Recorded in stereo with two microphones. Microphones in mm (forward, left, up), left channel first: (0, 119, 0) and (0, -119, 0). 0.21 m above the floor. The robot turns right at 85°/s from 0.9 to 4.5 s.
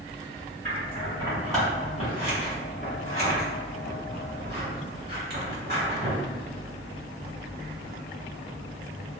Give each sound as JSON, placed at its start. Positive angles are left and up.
{"t": 0.7, "sound": "scissors", "side_deg": -35, "distance_m": 1.8}